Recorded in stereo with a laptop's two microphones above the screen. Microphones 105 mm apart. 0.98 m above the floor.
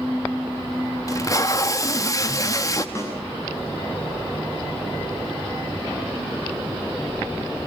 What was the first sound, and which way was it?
Tape being pulled, 30° left (ahead or behind).